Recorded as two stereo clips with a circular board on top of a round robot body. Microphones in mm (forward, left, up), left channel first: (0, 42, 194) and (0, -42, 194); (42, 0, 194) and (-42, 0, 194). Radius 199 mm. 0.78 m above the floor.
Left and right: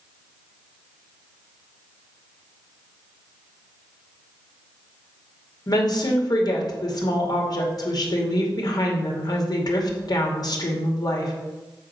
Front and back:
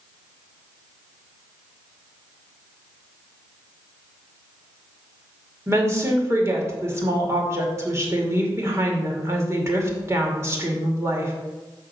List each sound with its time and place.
5.7 s a woman speaking: 125° left, 2.5 m